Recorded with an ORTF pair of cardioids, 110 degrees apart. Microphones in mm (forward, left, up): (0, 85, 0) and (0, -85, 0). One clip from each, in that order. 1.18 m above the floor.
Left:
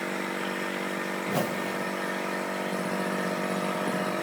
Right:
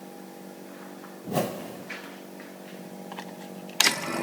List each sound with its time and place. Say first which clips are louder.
1.2 s a whoosh: right 2 dB; 10° right, 0.8 m